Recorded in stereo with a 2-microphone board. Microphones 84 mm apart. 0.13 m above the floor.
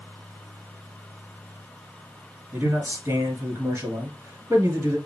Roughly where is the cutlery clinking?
I don't hear cutlery clinking.